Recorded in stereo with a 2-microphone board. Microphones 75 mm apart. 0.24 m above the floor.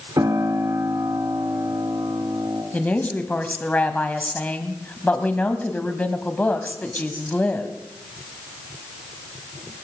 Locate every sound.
0.2 s a piano: 55° right (ahead or behind), 1.9 m
2.7 s a woman speaking: 20° left (ahead or behind), 1.3 m